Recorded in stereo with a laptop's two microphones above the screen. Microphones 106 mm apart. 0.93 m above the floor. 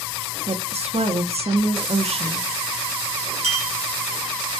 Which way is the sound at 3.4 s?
70° right (ahead or behind).